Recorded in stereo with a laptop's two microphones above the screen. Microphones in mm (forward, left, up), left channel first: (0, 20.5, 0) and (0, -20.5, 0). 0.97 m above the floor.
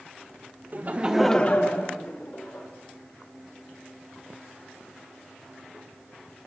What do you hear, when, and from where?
0.7 s laughter: 45° right (ahead or behind), 1.0 m; by 2.7 s 65° left (ahead or behind), 2 m